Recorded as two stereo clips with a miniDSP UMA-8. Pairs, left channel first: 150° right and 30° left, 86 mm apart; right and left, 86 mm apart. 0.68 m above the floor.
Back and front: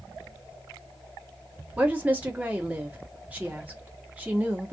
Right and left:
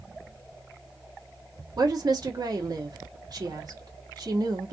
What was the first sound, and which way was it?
A woman speaking, 95° left.